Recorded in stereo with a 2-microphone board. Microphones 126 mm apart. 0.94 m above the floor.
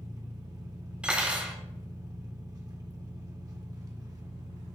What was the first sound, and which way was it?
An engine running, 30° right (ahead or behind).